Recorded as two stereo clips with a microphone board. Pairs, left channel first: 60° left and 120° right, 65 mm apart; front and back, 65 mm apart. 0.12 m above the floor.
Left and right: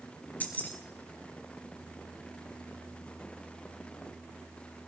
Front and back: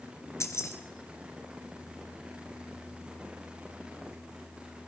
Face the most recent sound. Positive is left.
turn(degrees=5)